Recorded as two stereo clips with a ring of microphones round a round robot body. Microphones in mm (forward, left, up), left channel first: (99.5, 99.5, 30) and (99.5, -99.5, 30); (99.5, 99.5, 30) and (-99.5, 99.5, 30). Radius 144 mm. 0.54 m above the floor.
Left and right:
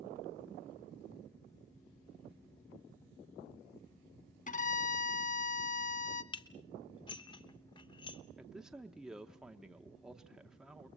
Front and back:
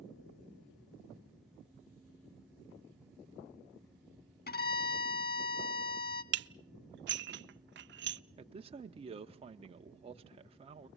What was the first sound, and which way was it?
A violin, 40° left.